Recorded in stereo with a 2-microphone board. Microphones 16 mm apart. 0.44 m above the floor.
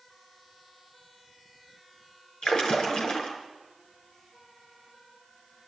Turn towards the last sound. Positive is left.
turn(degrees=70)  # may be behind; listen again after turning